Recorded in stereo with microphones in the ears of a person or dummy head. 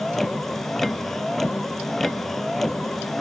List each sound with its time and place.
0.0 s a vehicle: centre (ahead or behind)